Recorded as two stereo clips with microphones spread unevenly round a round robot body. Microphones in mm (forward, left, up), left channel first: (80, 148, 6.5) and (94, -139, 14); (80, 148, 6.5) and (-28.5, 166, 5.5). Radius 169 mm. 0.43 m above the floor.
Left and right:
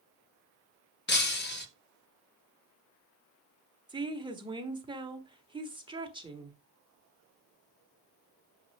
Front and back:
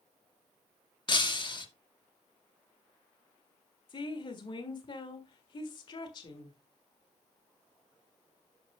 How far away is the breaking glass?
About 2.0 m.